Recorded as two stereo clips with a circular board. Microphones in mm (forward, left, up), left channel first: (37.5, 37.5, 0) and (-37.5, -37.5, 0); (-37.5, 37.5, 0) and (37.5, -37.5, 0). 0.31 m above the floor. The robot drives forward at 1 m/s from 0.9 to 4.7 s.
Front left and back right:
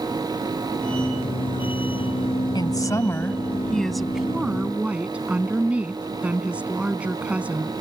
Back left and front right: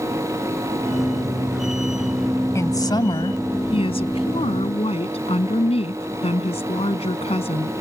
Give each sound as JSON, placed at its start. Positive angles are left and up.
{"t": 2.5, "sound": "a woman speaking", "azimuth_deg": 80}